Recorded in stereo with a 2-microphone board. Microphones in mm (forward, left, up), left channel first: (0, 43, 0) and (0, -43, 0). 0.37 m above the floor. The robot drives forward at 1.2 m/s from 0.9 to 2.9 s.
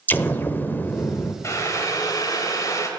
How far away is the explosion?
About 0.7 m.